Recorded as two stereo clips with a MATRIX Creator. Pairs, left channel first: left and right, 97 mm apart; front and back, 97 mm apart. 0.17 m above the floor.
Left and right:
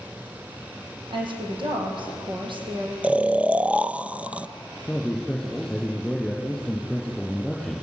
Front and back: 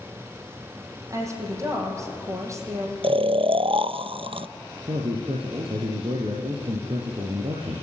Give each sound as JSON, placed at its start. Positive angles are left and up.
{"t": 1.1, "sound": "a woman speaking", "azimuth_deg": -120, "distance_m": 6.5}
{"t": 3.0, "sound": "snoring", "azimuth_deg": -165, "distance_m": 0.6}
{"t": 4.9, "sound": "a man speaking", "azimuth_deg": 175, "distance_m": 4.5}